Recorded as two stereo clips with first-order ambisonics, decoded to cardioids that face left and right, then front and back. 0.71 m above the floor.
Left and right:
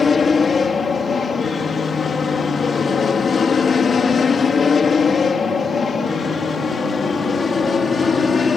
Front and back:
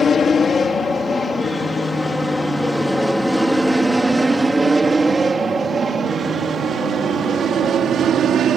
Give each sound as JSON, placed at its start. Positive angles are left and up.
{"t": 0.0, "sound": "an aircraft", "azimuth_deg": 45}